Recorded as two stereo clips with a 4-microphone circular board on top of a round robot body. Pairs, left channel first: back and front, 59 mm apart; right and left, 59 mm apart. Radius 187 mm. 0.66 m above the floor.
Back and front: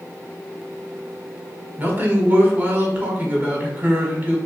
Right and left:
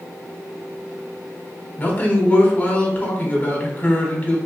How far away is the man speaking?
About 1.5 m.